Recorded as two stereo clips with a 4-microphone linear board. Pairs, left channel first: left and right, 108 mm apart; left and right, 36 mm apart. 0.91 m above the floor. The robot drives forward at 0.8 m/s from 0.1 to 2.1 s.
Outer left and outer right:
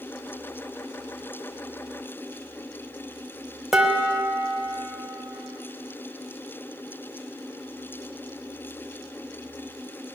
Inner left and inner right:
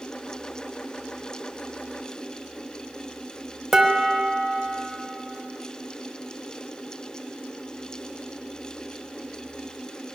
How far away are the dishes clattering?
About 0.9 m.